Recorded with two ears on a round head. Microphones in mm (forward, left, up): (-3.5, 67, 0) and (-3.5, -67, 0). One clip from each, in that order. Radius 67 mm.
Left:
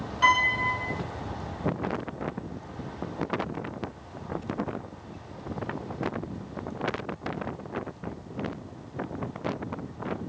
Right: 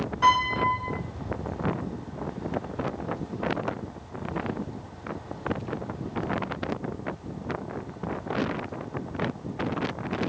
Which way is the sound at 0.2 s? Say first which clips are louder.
Even; 40° left (ahead or behind).